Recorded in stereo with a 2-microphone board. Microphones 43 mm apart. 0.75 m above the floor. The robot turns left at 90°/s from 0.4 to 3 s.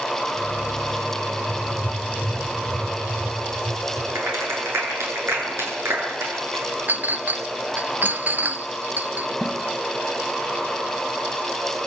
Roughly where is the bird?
No bird in this recording.